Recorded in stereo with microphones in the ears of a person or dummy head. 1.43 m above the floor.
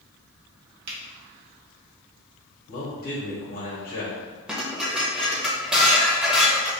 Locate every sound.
0.9 s a finger snap: 55° right (ahead or behind), 1.4 m
2.7 s a man speaking: 35° left (ahead or behind), 1.2 m
4.5 s dishes clattering: centre (ahead or behind), 0.9 m